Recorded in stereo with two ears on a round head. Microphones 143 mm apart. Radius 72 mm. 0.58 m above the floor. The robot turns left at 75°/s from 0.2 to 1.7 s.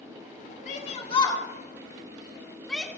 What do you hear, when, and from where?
0.7 s a shout: 45° left (ahead or behind), 1.7 m; by 2.9 s 5° left (ahead or behind), 1.7 m